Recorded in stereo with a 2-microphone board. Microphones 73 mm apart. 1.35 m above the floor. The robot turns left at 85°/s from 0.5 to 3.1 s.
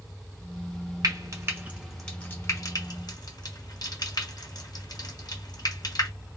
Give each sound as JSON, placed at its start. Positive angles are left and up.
{"t": 1.0, "sound": "frying", "side_deg": -65, "distance_m": 1.1}